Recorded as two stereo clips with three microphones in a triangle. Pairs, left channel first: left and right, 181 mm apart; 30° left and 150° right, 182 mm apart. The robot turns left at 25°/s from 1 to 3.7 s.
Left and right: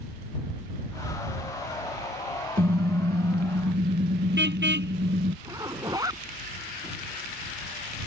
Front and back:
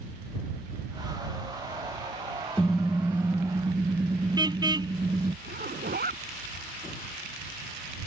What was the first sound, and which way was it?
A car horn, 55° right.